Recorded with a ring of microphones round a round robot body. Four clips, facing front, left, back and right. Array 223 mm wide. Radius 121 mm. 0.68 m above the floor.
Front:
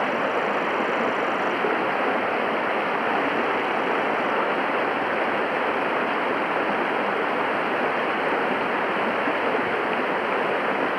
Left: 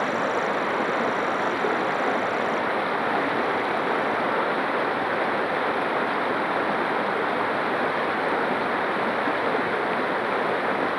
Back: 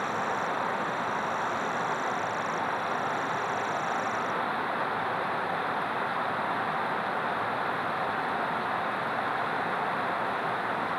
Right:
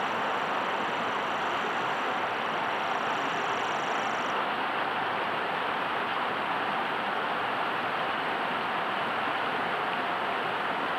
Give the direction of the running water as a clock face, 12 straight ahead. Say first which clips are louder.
Left 5 dB, front 6 dB; 11 o'clock.